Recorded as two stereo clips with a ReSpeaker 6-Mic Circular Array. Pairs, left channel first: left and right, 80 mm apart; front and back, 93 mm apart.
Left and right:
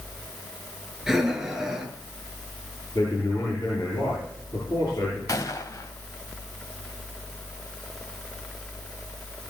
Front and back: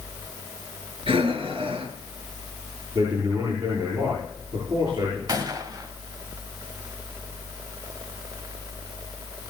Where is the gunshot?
135° left, 1.6 m.